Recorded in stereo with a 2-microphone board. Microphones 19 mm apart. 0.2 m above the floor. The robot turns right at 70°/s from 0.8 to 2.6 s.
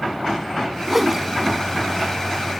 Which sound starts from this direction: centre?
A whoosh, at 0.9 s.